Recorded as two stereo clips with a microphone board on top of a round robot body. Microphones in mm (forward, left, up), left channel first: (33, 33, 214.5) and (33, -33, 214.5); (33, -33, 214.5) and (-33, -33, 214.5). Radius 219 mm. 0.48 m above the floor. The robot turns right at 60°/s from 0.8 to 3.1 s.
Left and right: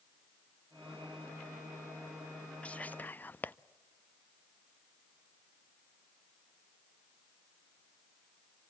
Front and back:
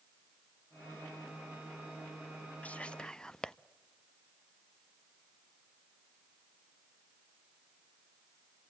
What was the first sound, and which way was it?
Whispering, 40° left.